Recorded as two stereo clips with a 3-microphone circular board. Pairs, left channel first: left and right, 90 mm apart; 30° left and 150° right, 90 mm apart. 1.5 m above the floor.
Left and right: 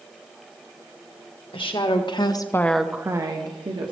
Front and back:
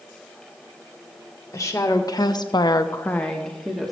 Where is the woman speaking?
85° left, 1.5 m; by 3.9 s 60° right, 1.5 m.